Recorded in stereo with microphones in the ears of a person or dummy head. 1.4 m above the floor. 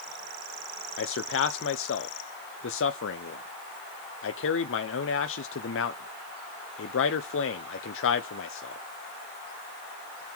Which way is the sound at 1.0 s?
60° left (ahead or behind).